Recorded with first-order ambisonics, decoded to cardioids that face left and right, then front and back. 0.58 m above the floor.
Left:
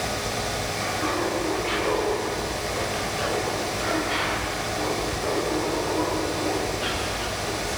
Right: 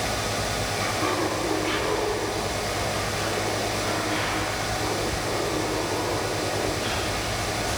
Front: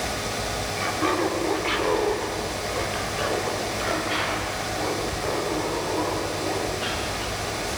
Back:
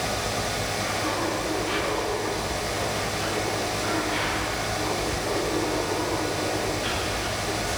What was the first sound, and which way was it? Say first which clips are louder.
Laughter: right 1 dB, front 6 dB; 15° right.